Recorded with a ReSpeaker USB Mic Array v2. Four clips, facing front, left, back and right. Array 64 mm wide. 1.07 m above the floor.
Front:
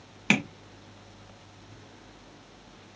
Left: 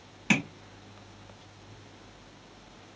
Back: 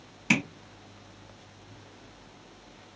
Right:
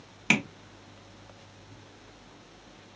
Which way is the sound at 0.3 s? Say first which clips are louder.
Right 1 dB, front 1 dB; 25° right.